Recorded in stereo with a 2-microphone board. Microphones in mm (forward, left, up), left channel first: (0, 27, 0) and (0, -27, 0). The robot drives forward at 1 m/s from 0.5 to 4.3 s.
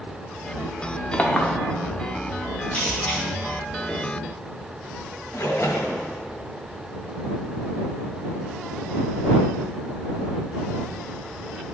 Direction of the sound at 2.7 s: 20° left (ahead or behind).